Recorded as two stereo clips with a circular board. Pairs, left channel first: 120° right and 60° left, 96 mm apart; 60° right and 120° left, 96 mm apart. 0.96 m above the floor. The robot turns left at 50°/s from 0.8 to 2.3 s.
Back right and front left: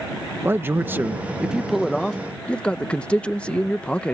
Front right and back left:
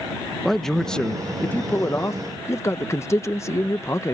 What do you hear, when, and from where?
0.5 s a man speaking: 20° left; by 4.1 s 55° right